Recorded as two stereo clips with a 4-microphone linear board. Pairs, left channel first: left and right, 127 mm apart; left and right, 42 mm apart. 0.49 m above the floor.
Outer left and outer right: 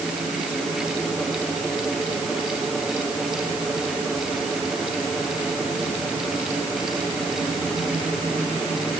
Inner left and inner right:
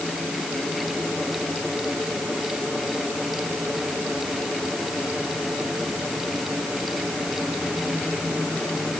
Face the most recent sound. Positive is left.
No sound to turn to.